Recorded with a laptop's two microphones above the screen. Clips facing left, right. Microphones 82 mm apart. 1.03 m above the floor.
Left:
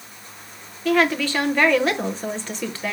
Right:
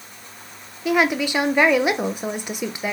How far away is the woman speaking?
About 0.7 m.